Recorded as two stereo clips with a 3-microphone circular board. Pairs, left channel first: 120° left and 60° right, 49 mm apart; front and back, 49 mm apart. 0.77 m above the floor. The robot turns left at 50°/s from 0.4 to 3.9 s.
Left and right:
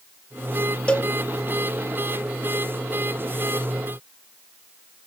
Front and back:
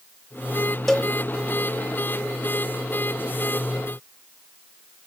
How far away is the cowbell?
About 1.0 m.